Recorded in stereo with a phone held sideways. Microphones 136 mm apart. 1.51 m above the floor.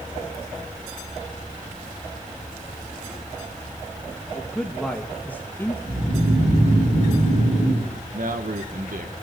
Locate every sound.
4.3 s a man speaking: centre (ahead or behind), 3 m; by 5.7 s 15° left (ahead or behind), 2 m
5.8 s snoring: 55° right (ahead or behind), 9.5 m
8.1 s a man speaking: 70° right (ahead or behind), 1.7 m